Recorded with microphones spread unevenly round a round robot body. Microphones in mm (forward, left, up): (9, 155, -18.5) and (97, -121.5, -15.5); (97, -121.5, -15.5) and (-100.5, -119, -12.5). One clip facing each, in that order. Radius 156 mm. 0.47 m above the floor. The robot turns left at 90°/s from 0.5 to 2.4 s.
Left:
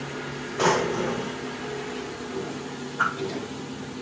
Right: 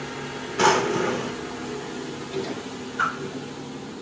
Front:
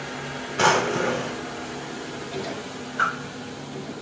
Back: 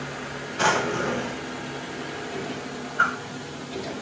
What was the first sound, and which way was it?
A drawer, 10° right.